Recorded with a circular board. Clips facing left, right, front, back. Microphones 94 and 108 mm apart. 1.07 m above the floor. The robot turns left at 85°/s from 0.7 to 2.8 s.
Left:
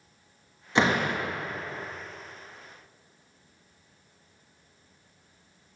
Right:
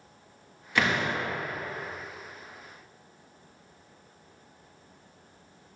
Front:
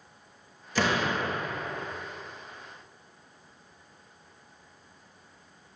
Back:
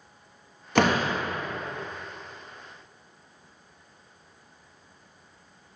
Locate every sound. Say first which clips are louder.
0.8 s a door slam: left 3 dB, back 4 dB; 155° left, 1.2 m; by 1.2 s 115° left, 1.2 m